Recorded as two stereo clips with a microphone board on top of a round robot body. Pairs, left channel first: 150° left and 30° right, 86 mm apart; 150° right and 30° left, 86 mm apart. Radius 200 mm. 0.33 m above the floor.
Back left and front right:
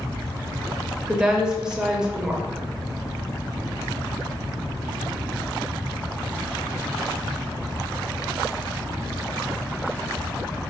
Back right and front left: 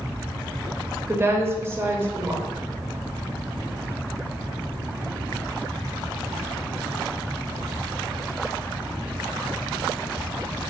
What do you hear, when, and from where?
1.1 s a woman speaking: 40° left, 0.9 m